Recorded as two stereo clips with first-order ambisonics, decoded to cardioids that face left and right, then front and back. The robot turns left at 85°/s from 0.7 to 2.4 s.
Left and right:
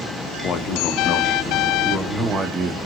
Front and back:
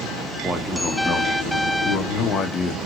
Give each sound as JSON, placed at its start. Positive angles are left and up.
{"t": 0.4, "sound": "a man speaking", "azimuth_deg": 110, "distance_m": 0.6}